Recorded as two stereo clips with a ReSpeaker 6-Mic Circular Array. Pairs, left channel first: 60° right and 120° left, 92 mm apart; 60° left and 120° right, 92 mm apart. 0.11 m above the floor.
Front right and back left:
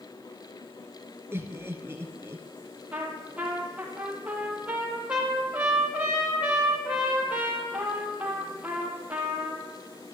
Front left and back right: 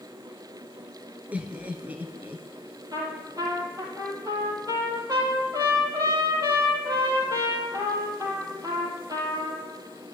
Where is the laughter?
170° left, 2 m.